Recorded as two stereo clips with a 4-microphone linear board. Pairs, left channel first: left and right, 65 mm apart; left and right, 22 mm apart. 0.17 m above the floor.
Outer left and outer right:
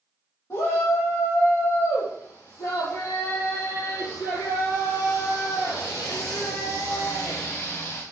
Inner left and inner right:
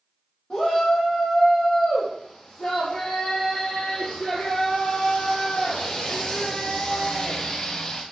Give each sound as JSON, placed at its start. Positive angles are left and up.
{"t": 0.5, "sound": "a shout", "side_deg": 50, "distance_m": 5.5}